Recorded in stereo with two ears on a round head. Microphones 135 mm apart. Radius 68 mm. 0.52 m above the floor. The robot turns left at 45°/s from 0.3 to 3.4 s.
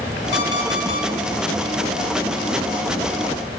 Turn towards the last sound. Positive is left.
turn(degrees=-45)